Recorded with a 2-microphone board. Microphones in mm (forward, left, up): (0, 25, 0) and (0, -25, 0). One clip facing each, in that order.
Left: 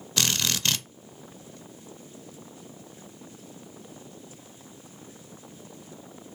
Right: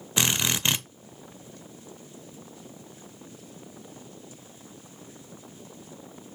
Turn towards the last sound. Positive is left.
turn(degrees=-20)  # may be behind; listen again after turning